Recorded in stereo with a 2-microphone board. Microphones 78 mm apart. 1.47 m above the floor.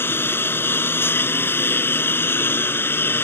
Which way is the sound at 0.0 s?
30° left (ahead or behind).